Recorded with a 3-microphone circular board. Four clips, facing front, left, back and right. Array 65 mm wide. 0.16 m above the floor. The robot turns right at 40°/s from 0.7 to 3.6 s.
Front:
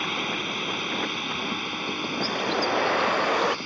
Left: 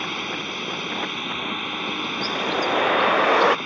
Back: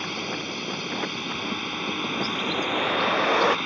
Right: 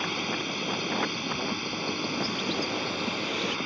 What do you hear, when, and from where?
0.0 s a drone: 45° left; by 3.7 s 160° left
2.2 s a bird: 45° left; by 3.6 s 100° left